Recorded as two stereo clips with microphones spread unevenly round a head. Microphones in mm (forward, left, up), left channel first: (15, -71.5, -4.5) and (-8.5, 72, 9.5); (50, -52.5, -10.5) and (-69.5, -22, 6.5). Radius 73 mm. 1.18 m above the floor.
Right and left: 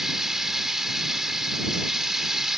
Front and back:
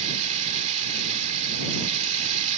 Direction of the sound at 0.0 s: 175° right.